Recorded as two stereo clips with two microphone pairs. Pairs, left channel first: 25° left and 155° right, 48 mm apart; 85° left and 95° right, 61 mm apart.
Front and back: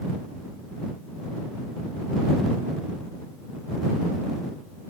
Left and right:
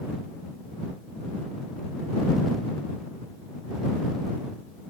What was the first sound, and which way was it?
Only background noise.